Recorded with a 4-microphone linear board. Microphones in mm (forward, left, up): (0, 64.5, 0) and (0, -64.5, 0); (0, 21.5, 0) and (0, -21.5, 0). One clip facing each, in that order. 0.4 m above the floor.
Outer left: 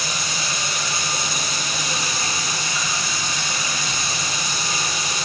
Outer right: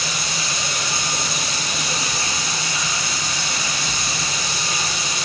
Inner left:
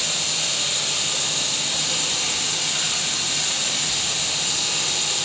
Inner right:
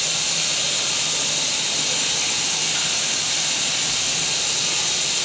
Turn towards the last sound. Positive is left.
turn(degrees=-65)  # may be behind; listen again after turning